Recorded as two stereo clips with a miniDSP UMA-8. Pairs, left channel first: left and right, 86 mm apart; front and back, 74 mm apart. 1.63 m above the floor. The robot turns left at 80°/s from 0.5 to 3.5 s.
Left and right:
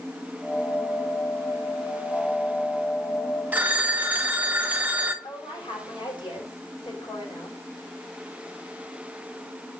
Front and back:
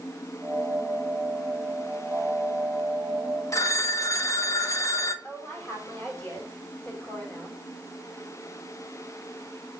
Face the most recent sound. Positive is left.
turn(degrees=70)